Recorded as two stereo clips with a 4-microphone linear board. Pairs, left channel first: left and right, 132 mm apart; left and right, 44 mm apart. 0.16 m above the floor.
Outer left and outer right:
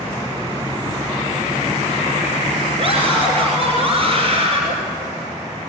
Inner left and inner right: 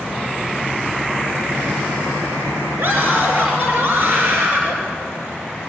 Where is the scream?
50° right (ahead or behind), 2.5 m.